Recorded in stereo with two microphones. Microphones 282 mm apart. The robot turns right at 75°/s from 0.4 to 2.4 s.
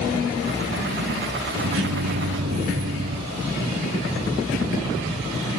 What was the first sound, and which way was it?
A microwave, 115° right.